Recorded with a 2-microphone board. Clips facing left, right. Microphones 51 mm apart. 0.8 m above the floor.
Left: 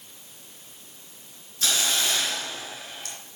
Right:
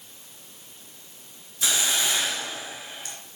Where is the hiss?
15° right (ahead or behind), 2.5 m.